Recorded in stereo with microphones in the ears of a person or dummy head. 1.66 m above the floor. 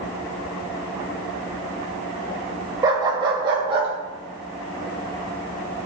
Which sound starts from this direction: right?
A dog barking, at 2.8 s.